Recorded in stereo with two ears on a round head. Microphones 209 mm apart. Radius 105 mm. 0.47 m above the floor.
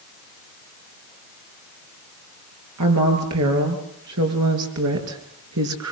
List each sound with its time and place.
2.8 s a woman speaking: 80° right, 8.5 m; by 5.9 s 75° right (ahead or behind), 6 m